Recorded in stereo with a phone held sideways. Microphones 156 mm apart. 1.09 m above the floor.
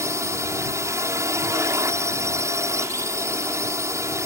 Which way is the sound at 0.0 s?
20° right (ahead or behind).